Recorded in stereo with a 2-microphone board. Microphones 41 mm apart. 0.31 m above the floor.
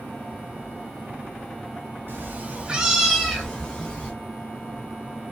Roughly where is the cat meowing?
Right.